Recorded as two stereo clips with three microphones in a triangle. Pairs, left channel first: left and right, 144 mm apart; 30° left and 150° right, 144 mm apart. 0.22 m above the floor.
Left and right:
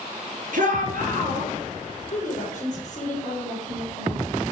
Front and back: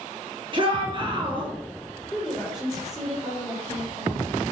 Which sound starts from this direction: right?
A shout, at 0.5 s.